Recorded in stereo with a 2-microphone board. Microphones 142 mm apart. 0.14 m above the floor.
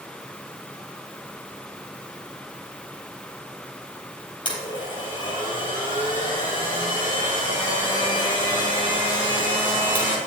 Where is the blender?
35° left (ahead or behind), 3 m.